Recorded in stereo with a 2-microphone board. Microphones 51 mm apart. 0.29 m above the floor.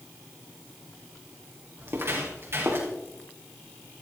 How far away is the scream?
I don't hear a scream.